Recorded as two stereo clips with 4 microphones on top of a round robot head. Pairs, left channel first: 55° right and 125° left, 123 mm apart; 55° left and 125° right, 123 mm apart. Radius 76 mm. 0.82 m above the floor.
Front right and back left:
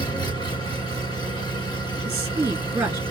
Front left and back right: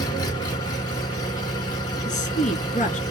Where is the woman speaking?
55° left, 1.5 m.